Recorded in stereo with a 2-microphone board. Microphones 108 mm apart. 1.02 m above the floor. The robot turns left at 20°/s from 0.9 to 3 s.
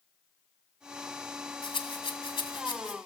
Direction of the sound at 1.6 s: 60° left (ahead or behind).